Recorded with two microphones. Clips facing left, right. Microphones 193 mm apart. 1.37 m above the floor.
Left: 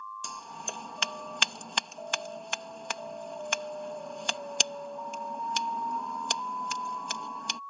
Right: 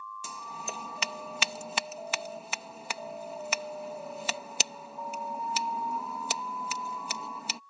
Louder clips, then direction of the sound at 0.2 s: Right 1 dB; 5° right (ahead or behind).